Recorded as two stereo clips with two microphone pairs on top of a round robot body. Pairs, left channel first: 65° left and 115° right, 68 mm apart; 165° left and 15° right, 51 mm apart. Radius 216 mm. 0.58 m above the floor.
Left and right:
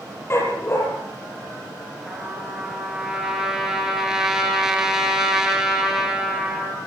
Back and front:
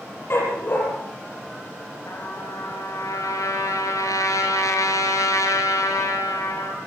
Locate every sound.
0.3 s a dog barking: 120° left, 6 m
2.1 s a trumpet: 160° left, 5 m